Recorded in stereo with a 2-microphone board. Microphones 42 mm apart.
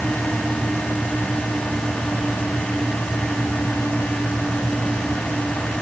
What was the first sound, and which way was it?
Only background noise.